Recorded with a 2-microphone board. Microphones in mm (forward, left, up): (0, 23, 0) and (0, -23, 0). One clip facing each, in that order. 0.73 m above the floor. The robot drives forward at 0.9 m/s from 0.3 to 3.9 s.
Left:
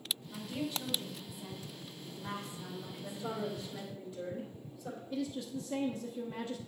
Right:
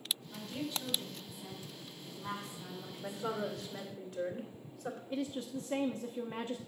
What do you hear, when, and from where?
0.3 s a woman speaking: 5° left (ahead or behind), 3.5 m; by 3.7 s centre (ahead or behind), 6.5 m
3.0 s a woman speaking: 65° right (ahead or behind), 2.5 m; by 5.0 s 50° right (ahead or behind), 3 m
5.1 s a woman speaking: 40° right (ahead or behind), 0.7 m